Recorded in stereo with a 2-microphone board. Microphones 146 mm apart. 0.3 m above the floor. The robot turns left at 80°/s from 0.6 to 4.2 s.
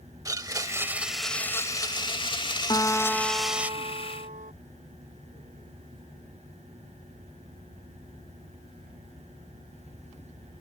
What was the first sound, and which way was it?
A blender, 135° right.